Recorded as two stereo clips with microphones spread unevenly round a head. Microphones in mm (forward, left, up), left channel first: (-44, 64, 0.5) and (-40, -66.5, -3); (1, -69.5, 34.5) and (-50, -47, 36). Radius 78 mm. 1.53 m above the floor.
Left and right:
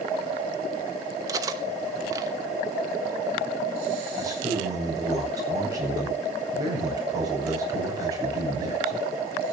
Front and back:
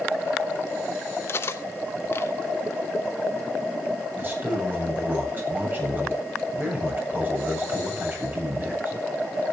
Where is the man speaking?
150° right, 8.5 m.